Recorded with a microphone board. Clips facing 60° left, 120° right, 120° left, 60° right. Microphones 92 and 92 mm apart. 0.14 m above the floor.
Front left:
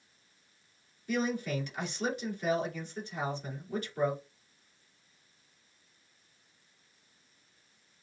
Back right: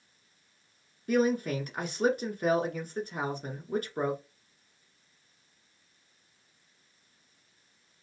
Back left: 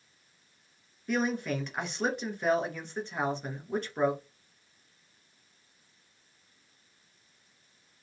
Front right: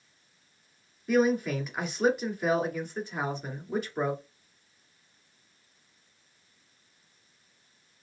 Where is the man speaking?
145° right, 2 m.